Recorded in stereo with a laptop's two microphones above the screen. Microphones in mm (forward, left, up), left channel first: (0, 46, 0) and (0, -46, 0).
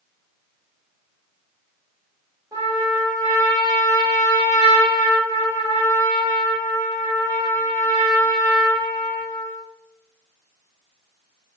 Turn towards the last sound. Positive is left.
turn(degrees=-40)  # may be behind; listen again after turning